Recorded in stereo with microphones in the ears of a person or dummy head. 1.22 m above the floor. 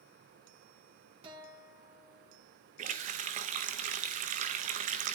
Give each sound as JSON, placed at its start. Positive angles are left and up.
{"t": 1.2, "sound": "a guitar", "side_deg": -30, "distance_m": 2.5}
{"t": 2.8, "sound": "a running tap", "side_deg": -40, "distance_m": 0.7}